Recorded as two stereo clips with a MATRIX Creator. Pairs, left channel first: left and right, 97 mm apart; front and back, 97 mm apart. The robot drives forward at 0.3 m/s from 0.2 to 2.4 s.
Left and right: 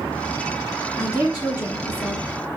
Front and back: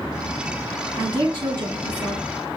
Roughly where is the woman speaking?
Behind left.